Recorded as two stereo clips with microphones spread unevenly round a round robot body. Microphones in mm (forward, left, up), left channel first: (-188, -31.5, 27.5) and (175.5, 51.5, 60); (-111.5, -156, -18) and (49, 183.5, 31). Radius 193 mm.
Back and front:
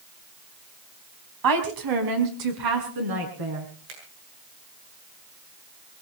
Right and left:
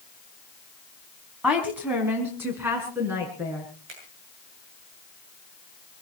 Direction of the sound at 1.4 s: 25° right.